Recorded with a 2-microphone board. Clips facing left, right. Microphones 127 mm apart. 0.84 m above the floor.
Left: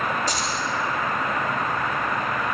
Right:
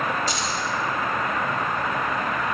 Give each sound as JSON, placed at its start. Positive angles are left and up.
{"t": 0.3, "sound": "keys jangling", "side_deg": 45, "distance_m": 3.0}